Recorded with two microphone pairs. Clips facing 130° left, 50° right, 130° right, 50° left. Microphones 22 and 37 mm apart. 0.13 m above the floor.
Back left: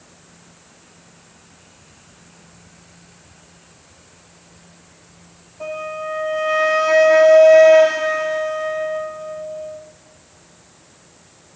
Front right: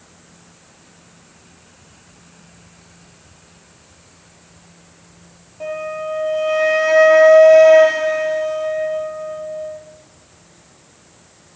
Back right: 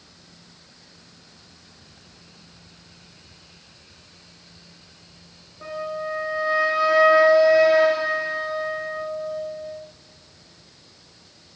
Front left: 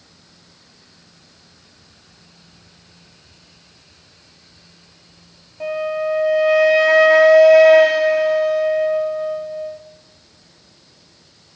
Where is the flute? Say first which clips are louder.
Front right 2 dB, front left 8 dB; 35° left, 3 m.